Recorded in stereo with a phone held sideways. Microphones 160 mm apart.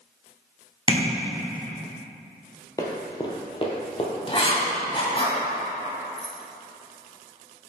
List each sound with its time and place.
0.9 s tapping: 30° right (ahead or behind), 1.2 m
2.8 s running footsteps: 20° left (ahead or behind), 1.1 m; by 4.1 s 35° left (ahead or behind), 1.3 m
4.3 s writing: 35° left (ahead or behind), 1.7 m
6.2 s keys jangling: 70° right (ahead or behind), 0.7 m